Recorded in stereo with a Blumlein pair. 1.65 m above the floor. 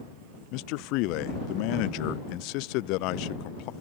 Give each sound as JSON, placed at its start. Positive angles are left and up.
{"t": 0.5, "sound": "a man speaking", "azimuth_deg": 40}